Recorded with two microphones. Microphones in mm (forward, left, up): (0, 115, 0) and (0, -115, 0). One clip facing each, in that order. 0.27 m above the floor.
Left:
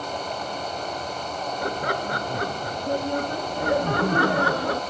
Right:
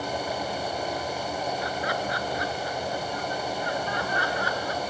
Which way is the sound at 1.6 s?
55° left (ahead or behind).